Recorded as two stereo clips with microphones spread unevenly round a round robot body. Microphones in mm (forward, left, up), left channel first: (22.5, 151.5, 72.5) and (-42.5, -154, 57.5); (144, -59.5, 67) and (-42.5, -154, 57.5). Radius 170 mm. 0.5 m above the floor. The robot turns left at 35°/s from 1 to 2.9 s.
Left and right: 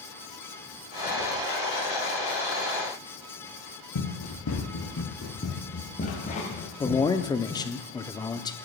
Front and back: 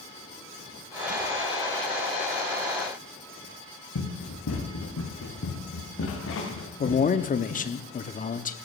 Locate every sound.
4.0 s running footsteps: 40° left, 3 m; by 7.7 s straight ahead, 5.5 m
6.8 s a man speaking: 5° left, 0.8 m